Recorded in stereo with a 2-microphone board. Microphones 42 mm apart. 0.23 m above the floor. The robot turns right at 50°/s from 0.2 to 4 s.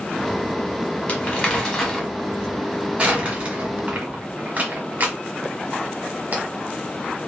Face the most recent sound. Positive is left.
turn(degrees=-40)  # may be behind; listen again after turning